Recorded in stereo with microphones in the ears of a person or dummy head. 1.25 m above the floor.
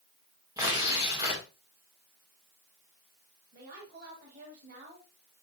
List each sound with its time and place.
0.6 s tearing paper: 20° right (ahead or behind), 1.9 m
3.5 s a woman speaking: 60° right (ahead or behind), 2.5 m